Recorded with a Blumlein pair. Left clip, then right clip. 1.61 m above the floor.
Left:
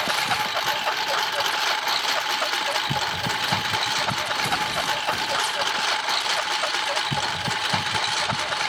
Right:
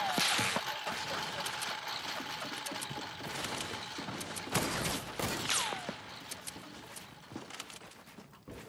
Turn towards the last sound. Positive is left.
turn(degrees=45)